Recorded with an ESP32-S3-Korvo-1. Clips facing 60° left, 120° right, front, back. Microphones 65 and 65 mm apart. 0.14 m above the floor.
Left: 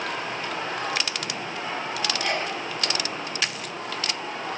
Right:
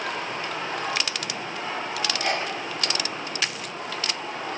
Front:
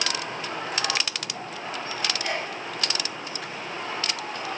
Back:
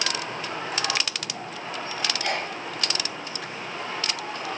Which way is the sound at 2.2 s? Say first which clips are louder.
Right 1 dB, back 1 dB; 160° right.